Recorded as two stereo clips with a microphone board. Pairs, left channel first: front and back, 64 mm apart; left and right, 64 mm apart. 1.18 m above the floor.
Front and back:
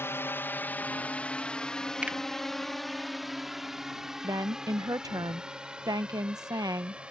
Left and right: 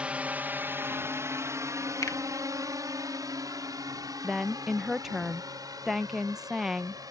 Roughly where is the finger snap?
Left.